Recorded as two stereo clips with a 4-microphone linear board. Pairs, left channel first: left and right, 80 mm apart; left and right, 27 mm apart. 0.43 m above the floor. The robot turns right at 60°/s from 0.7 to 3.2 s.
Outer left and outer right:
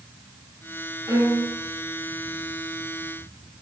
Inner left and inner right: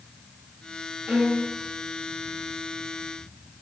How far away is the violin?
About 8 m.